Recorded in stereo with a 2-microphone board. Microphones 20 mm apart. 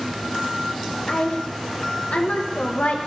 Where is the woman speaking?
80° left, 1.3 m.